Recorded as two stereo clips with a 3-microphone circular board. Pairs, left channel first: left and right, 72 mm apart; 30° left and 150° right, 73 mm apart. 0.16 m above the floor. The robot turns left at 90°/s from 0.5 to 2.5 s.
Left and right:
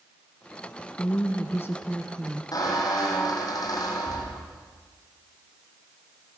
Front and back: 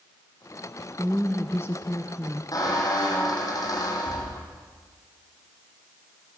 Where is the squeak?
60° left, 5 m.